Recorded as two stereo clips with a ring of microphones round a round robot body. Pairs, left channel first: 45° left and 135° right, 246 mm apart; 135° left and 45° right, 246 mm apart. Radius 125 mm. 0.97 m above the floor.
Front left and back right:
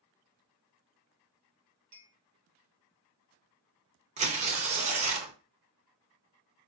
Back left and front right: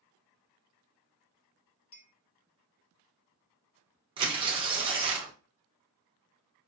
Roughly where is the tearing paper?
Right.